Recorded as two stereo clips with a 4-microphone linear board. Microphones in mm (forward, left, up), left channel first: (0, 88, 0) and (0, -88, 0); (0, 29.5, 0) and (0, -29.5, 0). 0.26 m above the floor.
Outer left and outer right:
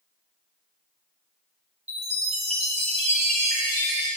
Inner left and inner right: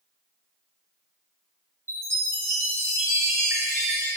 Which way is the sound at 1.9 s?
40° right (ahead or behind).